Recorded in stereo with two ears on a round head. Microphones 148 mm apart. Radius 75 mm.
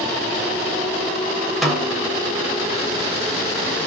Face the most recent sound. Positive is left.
turn(degrees=0)  # may be behind; listen again after turning